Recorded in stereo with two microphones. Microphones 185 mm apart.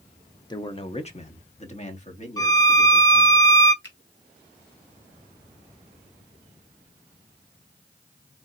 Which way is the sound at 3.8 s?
85° left.